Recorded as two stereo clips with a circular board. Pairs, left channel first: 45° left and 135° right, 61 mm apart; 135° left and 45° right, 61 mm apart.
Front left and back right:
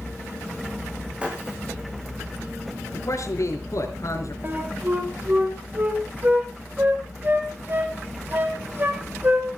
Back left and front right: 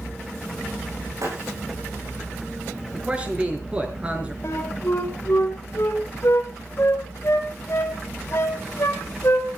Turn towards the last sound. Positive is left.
turn(degrees=170)